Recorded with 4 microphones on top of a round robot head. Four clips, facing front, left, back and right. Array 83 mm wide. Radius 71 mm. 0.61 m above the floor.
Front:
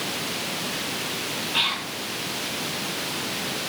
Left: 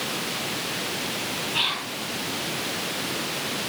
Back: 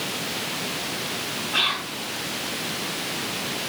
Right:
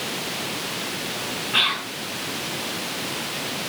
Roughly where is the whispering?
Behind right.